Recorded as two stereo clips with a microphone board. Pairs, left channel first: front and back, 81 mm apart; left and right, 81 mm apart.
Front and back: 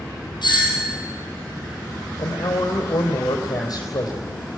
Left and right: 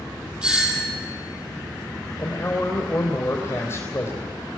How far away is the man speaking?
About 3.5 m.